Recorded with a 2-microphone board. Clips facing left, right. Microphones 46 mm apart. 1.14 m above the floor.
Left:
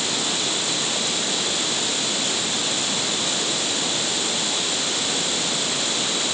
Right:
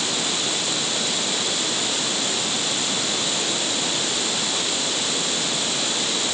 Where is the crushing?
No crushing in this recording.